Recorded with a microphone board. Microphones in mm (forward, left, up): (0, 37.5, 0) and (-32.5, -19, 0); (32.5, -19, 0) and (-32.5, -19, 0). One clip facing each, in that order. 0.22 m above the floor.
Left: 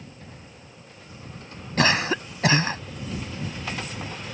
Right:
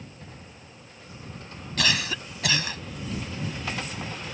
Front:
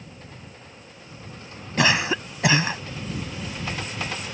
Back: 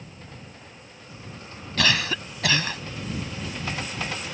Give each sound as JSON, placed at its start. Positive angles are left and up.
{"t": 1.8, "sound": "a cough", "azimuth_deg": 50}